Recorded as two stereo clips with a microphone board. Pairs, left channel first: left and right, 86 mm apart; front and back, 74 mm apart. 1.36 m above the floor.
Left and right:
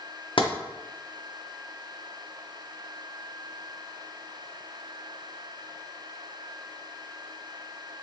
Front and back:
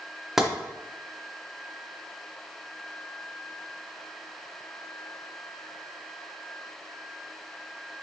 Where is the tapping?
95° left, 0.6 m.